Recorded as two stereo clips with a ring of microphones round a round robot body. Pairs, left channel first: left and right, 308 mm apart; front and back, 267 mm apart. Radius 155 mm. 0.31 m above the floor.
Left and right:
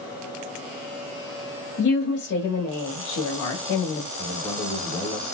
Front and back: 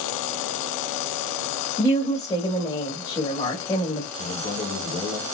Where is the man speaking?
5° left, 1.7 m.